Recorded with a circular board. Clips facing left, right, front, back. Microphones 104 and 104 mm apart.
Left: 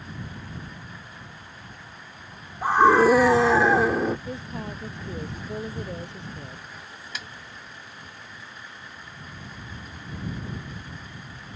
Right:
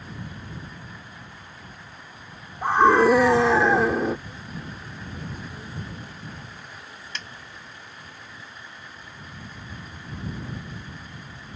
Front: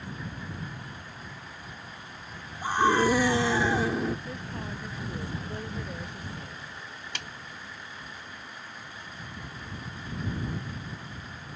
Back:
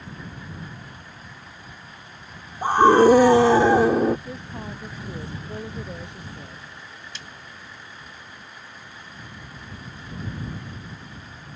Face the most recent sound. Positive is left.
turn(degrees=5)